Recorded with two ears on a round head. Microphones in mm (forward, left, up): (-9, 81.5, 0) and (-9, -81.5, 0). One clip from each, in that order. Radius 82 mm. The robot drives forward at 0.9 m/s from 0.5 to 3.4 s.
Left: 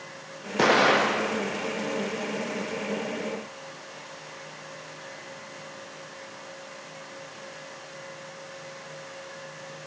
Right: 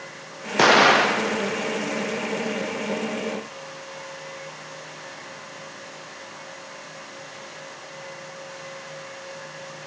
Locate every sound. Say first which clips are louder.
0.6 s an explosion: right 5 dB; 25° right (ahead or behind), 0.7 m; by 1.4 s 20° right (ahead or behind), 0.9 m